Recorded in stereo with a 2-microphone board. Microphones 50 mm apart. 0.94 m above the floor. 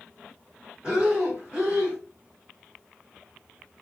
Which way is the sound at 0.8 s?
20° right (ahead or behind).